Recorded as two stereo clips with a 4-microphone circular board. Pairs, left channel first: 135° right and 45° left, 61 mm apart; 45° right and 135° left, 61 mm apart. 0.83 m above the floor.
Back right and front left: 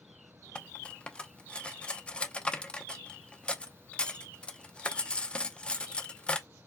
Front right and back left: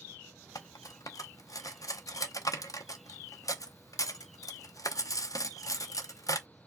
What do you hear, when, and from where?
0.6 s cutlery clinking: 65° right, 0.7 m